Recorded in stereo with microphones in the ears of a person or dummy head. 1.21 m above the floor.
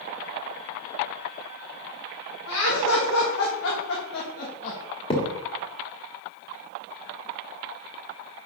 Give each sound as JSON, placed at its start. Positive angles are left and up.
{"t": 2.5, "sound": "laughter", "side_deg": 75, "distance_m": 1.8}
{"t": 5.1, "sound": "a thud", "side_deg": 25, "distance_m": 1.5}